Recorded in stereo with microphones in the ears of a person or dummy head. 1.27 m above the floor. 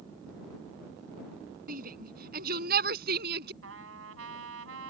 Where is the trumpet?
80° right.